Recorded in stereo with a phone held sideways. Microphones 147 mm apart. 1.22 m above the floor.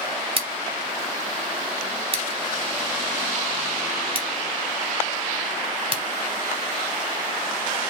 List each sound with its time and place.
0.4 s scissors: 40° right (ahead or behind), 1.2 m